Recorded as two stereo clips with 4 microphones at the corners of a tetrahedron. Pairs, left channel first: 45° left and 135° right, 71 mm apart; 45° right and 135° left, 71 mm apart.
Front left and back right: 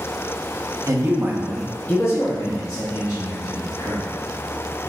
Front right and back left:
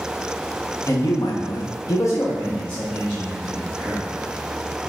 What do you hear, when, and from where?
0.9 s a man speaking: 90° right, 0.8 m; by 4.0 s 35° left, 1.9 m